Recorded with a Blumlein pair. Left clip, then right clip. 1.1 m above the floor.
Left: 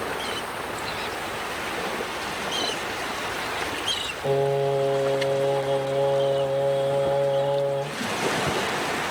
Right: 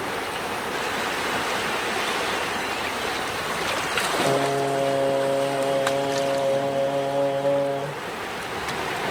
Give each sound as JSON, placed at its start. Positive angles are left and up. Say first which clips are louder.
{"t": 4.2, "sound": "singing", "louder": "right 1 dB", "azimuth_deg": -65, "distance_m": 1.6}